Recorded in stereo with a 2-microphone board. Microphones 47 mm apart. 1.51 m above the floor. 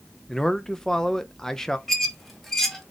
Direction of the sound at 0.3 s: 10° left (ahead or behind).